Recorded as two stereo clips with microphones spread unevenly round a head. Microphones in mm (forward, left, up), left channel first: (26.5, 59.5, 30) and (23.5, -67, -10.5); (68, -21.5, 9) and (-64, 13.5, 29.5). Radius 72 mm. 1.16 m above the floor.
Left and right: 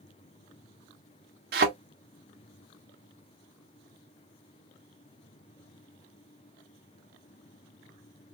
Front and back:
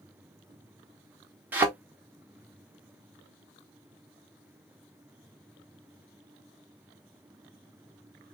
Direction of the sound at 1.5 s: 125° right.